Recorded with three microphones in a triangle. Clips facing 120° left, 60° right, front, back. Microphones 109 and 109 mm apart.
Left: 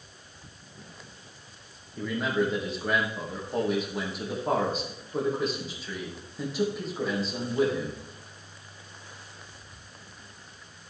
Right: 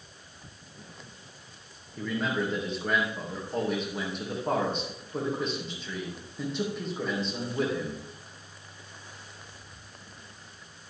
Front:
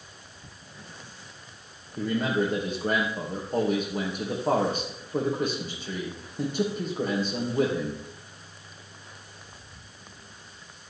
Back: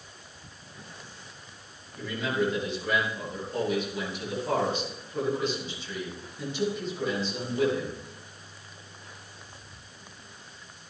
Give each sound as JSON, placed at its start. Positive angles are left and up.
{"t": 2.0, "sound": "a man speaking", "azimuth_deg": 35, "distance_m": 4.0}